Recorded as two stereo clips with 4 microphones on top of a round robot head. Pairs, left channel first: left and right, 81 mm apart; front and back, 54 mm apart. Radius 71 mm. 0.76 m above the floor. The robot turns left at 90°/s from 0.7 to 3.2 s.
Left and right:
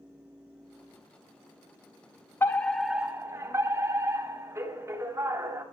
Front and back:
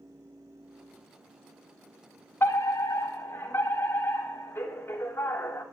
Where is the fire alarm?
35° left, 3.5 m; by 5.6 s 40° right, 3.5 m.